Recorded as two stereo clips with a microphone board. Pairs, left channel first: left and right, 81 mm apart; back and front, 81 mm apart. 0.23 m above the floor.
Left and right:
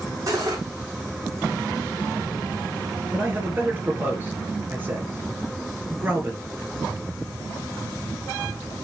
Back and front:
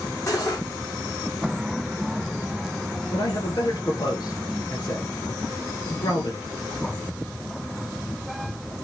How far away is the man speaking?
About 3 m.